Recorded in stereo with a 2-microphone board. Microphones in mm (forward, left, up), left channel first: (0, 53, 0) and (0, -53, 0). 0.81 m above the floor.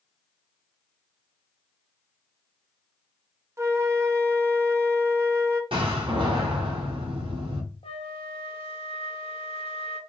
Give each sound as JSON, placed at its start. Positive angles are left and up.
{"t": 3.6, "sound": "a flute", "side_deg": -30, "distance_m": 0.5}
{"t": 5.7, "sound": "a door slam", "side_deg": -55, "distance_m": 1.4}
{"t": 7.8, "sound": "a flute", "side_deg": 65, "distance_m": 0.7}